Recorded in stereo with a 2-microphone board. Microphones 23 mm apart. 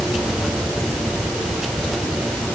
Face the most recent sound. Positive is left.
No sound to turn to.